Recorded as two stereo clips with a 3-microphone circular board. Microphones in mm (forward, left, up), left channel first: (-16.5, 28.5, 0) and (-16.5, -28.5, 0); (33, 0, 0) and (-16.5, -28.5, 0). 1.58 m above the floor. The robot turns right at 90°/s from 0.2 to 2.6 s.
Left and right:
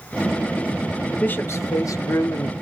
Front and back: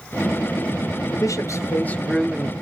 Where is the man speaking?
20° left, 0.6 m; by 2.5 s 145° left, 0.6 m.